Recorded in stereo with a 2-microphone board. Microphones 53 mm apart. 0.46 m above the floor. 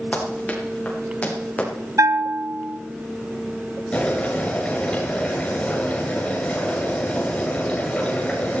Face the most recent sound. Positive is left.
turn(degrees=20)  # may be behind; listen again after turning